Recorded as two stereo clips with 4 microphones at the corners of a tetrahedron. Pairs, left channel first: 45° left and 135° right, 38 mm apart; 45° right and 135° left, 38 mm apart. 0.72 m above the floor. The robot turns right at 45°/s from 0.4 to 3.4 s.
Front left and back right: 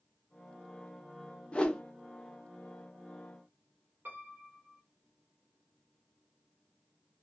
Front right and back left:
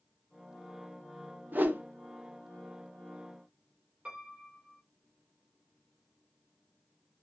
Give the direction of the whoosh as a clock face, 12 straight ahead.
9 o'clock.